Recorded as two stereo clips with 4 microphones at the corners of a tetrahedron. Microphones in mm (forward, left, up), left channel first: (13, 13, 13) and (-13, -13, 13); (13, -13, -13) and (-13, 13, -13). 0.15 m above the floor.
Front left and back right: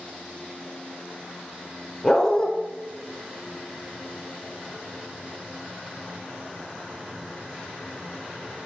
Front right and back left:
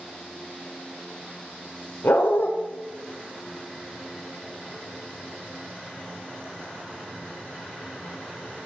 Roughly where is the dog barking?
Ahead right.